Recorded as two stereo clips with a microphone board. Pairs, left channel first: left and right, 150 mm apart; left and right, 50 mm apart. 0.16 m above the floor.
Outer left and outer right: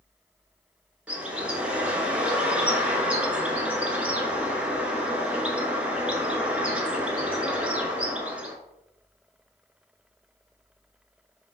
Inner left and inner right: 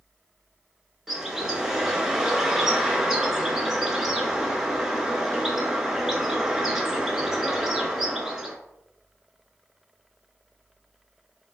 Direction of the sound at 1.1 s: 10° right (ahead or behind).